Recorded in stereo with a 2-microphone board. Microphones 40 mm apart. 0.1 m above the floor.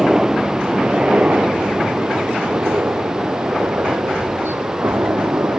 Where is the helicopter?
15° right (ahead or behind); by 5.6 s 70° right (ahead or behind).